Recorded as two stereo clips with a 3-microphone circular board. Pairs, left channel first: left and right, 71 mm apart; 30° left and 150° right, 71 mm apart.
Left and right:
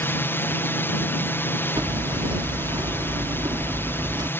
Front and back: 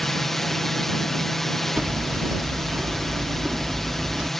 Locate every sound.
0.0 s a drone: 115° left
1.8 s hammering: 80° right